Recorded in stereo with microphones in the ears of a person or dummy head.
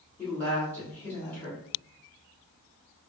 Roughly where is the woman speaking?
Centre.